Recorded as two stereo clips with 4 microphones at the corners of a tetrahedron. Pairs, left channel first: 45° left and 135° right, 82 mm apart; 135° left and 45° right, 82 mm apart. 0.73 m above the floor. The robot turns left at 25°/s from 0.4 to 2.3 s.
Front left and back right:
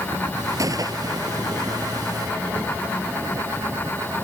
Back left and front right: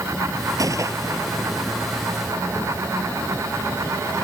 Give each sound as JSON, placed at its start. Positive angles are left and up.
{"t": 0.6, "sound": "a gunshot", "azimuth_deg": -90}